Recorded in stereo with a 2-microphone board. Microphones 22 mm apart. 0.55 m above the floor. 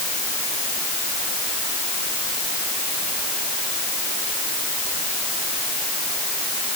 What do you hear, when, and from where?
Only background noise.